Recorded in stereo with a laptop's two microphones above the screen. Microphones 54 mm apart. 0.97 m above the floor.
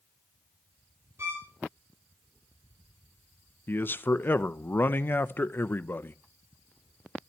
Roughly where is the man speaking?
Left.